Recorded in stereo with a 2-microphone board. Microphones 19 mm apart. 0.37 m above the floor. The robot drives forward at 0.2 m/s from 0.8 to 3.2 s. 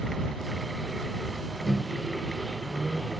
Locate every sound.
1.6 s a microwave: 25° right (ahead or behind), 0.6 m; by 3.1 s 20° right (ahead or behind), 0.7 m